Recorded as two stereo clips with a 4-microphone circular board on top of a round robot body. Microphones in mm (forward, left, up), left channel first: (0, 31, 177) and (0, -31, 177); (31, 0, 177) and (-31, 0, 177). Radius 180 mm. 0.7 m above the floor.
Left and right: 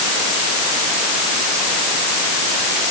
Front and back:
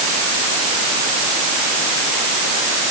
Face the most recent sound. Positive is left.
No sound to turn to.